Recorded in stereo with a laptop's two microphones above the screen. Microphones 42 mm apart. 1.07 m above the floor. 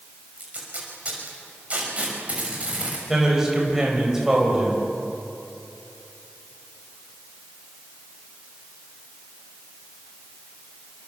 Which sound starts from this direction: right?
Tape being pulled, at 0.4 s.